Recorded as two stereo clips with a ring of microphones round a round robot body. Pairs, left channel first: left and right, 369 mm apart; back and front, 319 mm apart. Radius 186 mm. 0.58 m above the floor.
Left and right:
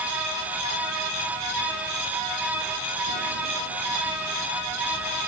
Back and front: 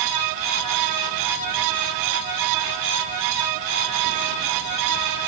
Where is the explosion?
No explosion in this recording.